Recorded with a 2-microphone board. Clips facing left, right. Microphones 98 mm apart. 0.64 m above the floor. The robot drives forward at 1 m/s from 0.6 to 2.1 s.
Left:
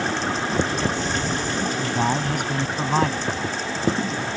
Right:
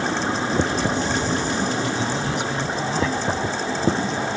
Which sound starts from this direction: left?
A man speaking, at 1.8 s.